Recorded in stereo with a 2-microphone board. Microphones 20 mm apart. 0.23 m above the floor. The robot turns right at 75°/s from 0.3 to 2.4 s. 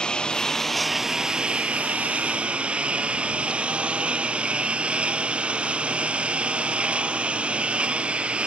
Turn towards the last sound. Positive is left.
turn(degrees=-60)